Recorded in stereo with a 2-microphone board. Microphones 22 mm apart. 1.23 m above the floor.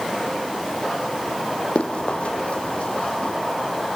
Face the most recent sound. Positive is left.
turn(degrees=65)  # may be behind; listen again after turning